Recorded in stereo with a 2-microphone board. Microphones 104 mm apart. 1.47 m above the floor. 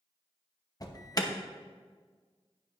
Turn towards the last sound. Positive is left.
turn(degrees=35)  # may be behind; listen again after turning